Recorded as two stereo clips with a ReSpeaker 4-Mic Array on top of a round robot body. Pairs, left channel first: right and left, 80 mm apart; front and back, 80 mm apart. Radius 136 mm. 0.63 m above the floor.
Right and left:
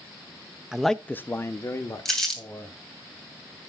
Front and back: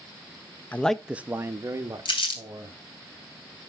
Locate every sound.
0.7 s a man speaking: 20° left, 0.7 m; by 2.8 s 140° right, 2 m
2.0 s crumpling: 5° right, 3.5 m